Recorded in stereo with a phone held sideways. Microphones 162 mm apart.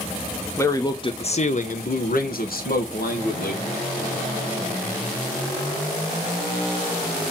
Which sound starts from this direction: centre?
A man speaking, at 0.6 s.